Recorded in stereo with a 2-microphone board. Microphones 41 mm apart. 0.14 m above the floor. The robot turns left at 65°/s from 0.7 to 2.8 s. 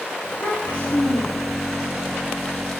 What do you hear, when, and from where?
0.2 s a child speaking: 90° left, 8.5 m; by 1.7 s 25° left, 8.5 m